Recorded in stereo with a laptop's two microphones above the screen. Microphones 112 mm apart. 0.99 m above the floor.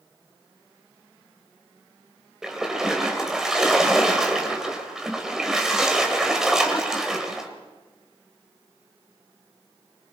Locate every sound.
2.4 s a splash: 5° right (ahead or behind), 3 m